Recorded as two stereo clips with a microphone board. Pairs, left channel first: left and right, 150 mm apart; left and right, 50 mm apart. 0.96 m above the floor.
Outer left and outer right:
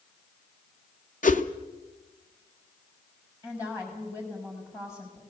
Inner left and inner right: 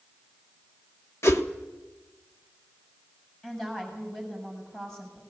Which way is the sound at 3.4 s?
20° left (ahead or behind).